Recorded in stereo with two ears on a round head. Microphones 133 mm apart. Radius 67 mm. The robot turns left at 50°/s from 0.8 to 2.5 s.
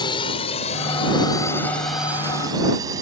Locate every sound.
0.0 s a drone: 30° left (ahead or behind); by 3.0 s 25° right (ahead or behind)